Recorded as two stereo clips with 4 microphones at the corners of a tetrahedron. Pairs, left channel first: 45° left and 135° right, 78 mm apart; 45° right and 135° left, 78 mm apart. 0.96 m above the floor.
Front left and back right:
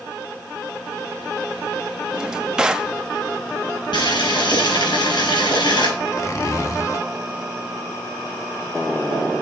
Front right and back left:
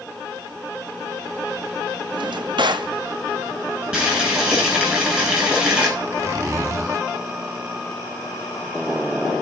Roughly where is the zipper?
Left.